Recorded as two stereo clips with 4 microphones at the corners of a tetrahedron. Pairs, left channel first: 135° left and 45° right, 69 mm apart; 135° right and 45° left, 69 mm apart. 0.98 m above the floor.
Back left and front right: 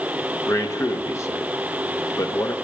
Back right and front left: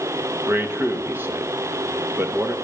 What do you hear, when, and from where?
0.5 s a man speaking: 100° left, 1.3 m